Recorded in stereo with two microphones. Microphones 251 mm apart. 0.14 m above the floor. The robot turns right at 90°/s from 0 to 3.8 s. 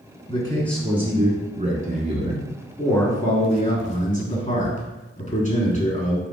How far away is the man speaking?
About 1.3 m.